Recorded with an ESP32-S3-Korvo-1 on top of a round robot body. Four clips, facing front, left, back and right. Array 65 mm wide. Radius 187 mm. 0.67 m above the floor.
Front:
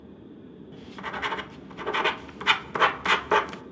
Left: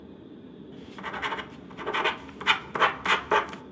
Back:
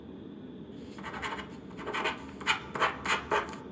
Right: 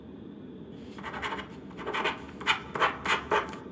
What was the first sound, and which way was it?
Writing, 35° left.